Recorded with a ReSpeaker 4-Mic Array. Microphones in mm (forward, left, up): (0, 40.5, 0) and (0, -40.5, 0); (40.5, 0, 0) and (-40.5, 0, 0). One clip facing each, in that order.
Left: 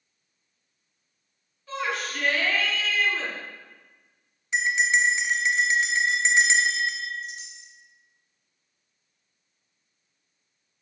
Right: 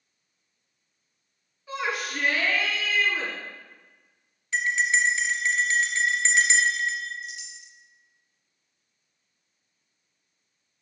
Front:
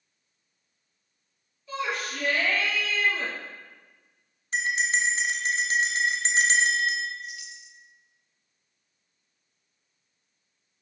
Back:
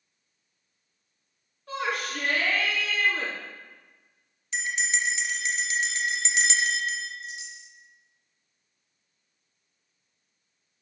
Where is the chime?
125° left, 1.2 m.